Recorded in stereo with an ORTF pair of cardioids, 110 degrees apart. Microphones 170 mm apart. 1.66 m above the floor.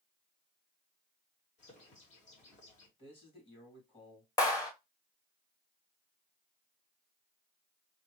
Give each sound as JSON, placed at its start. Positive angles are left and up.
{"t": 1.6, "sound": "a bird", "azimuth_deg": 45, "distance_m": 2.5}
{"t": 3.0, "sound": "a man speaking", "azimuth_deg": 35, "distance_m": 3.5}
{"t": 4.4, "sound": "a clap", "azimuth_deg": 20, "distance_m": 1.6}